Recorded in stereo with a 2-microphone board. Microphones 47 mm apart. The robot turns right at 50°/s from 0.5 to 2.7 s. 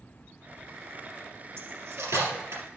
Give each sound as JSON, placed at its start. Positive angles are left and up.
{"t": 1.6, "sound": "cutlery clinking", "side_deg": -55, "distance_m": 3.5}